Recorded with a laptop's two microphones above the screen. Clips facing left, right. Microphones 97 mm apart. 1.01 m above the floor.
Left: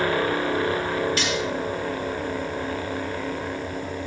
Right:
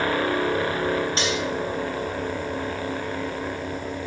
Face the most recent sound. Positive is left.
turn(degrees=-30)  # may be behind; listen again after turning